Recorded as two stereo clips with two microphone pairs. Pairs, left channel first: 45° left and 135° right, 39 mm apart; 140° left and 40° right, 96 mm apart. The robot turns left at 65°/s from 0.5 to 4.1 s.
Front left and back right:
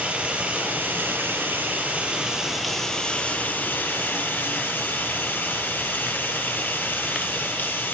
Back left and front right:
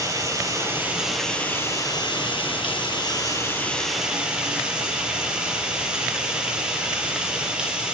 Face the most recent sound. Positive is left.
turn(degrees=40)